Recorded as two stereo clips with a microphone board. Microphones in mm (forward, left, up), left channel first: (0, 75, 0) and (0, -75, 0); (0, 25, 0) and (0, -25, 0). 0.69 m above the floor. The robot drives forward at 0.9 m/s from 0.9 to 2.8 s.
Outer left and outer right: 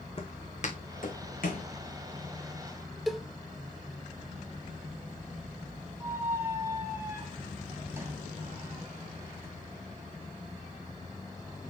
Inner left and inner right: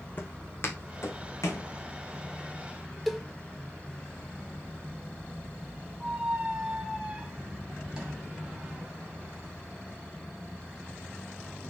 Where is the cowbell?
Centre (ahead or behind), 0.8 m.